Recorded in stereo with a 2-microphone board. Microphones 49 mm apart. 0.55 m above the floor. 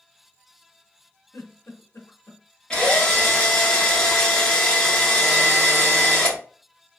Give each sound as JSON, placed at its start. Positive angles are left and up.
{"t": 1.3, "sound": "a giggle", "side_deg": 85, "distance_m": 0.8}
{"t": 2.7, "sound": "a drill", "side_deg": 15, "distance_m": 0.9}